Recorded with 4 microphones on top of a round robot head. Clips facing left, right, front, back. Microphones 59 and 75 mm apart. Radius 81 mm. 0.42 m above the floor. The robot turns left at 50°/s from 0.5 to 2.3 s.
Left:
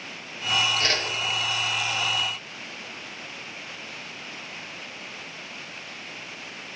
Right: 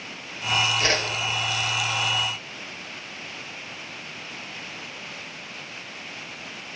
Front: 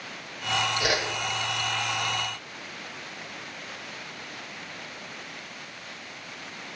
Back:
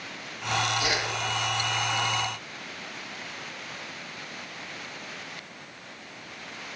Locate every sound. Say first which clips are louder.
0.8 s a whoosh: right 2 dB, front 2 dB; 15° right, 1.9 m; by 1.0 s 30° right, 1.9 m